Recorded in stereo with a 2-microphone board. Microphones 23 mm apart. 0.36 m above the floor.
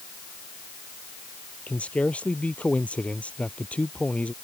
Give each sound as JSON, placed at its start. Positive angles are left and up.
{"t": 1.7, "sound": "a man speaking", "side_deg": 75}